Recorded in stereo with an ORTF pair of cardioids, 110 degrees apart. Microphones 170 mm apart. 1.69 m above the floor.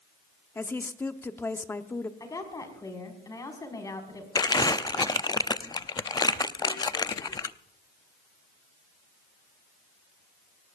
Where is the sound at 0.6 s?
10° left, 1.1 m.